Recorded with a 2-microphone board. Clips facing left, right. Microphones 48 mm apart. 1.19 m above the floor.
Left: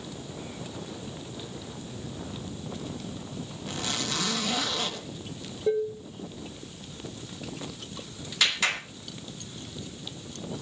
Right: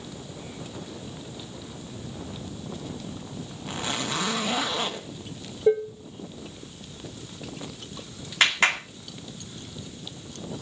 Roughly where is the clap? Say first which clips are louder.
Right 5 dB; right.